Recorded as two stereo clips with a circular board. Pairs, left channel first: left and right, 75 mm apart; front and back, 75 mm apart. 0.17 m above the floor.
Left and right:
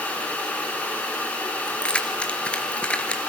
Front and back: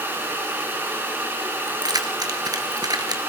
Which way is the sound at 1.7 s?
165° left.